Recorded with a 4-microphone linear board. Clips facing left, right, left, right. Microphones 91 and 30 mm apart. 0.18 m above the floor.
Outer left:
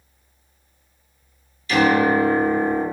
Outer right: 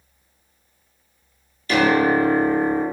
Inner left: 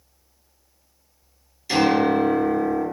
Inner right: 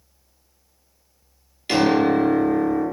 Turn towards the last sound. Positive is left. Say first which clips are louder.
# even, inner right 1 dB
turn(degrees=-50)  # may be behind; listen again after turning